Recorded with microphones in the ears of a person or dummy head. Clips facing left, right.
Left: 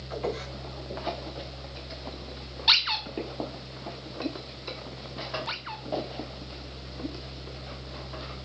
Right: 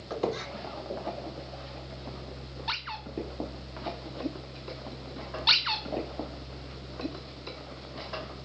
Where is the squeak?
70° right (ahead or behind), 2 m.